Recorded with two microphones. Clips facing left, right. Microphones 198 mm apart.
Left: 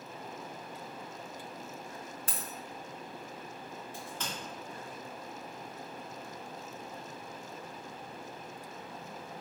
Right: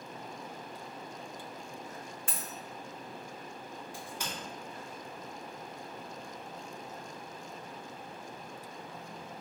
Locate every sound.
2.3 s a dropped coin: 40° left (ahead or behind), 0.6 m
3.9 s a crack: 10° right (ahead or behind), 1.7 m